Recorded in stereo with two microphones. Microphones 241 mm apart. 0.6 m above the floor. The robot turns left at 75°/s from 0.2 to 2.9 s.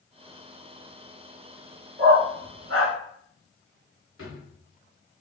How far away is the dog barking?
About 1.2 m.